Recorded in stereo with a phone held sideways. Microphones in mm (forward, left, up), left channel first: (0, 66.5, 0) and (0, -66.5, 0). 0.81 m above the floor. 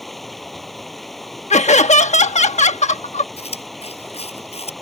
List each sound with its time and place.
0.0 s running water: centre (ahead or behind)
1.5 s laughter: 60° left (ahead or behind)
3.4 s chewing: 50° left (ahead or behind)